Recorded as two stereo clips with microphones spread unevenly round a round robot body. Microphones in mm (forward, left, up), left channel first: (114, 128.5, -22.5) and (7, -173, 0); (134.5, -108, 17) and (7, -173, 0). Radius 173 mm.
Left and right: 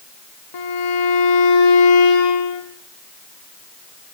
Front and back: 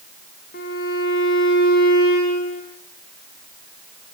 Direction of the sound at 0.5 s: 60° left.